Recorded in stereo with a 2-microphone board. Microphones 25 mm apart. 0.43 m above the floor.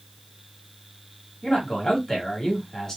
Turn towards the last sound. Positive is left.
turn(degrees=20)  # may be behind; listen again after turning